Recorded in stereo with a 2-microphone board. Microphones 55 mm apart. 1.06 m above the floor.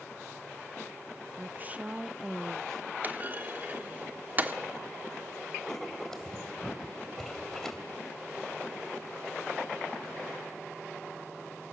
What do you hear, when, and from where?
1.4 s a woman speaking: 40° right (ahead or behind), 0.6 m; by 2.9 s 15° left (ahead or behind), 0.9 m
3.0 s a clunk: 35° right (ahead or behind), 1.1 m
5.7 s writing: 10° left (ahead or behind), 2.5 m